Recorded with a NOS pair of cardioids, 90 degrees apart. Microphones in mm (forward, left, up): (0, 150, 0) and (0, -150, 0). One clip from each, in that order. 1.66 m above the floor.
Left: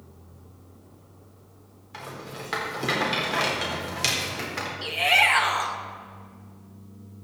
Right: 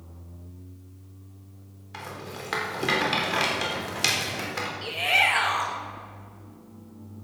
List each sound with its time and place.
1.9 s a rattle: 10° right, 4 m
4.8 s a shout: 20° left, 2.0 m